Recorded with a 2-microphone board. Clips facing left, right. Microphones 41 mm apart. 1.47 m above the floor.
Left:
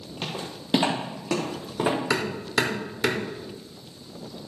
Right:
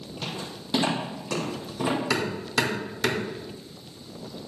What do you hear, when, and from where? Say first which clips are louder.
0.2 s footsteps: left 2 dB; 45° left (ahead or behind), 3.5 m; by 2.0 s 60° left (ahead or behind), 4 m
2.1 s hammering: left 1 dB; 25° left (ahead or behind), 1.8 m